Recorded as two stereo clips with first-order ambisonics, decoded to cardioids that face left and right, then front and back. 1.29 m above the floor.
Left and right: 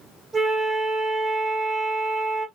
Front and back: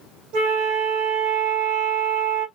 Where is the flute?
170° right, 2 m.